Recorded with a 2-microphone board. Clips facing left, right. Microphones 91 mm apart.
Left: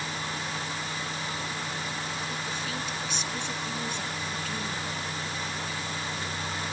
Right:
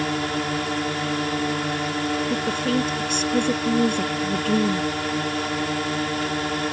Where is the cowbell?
No cowbell in this recording.